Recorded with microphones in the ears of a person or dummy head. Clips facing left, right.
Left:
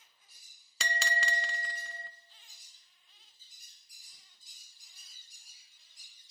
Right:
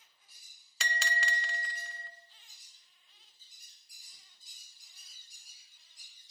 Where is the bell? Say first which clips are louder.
Left 2 dB; 65° left (ahead or behind), 0.6 m.